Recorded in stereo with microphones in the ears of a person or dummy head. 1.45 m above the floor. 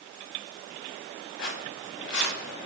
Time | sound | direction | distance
1.4 | footsteps | 75° left (ahead or behind) | 5.5 m